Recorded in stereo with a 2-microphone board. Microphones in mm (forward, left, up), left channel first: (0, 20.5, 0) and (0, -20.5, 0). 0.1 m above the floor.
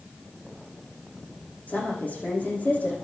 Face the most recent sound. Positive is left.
turn(degrees=40)  # may be behind; listen again after turning